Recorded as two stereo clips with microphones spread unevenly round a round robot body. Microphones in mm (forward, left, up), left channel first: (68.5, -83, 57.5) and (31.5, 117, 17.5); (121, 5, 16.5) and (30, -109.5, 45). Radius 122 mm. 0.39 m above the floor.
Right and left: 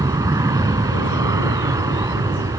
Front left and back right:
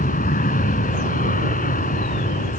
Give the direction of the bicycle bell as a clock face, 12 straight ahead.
I don't hear a bicycle bell.